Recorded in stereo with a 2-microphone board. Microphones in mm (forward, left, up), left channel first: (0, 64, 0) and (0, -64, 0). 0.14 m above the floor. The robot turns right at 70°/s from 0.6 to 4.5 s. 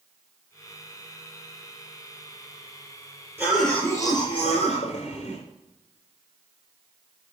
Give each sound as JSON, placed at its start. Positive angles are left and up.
{"t": 3.4, "sound": "a cough", "azimuth_deg": -15, "distance_m": 3.0}